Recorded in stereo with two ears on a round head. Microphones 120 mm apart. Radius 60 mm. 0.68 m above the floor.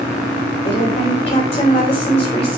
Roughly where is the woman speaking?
Left.